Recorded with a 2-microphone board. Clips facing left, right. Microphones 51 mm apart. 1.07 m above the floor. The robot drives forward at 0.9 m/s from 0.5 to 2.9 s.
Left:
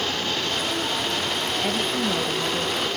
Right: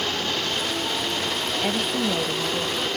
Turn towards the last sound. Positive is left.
turn(degrees=-5)  # may be behind; listen again after turning